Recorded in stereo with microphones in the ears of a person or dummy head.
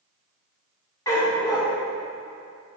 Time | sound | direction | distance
1.1 | a dog barking | 15° left (ahead or behind) | 2 m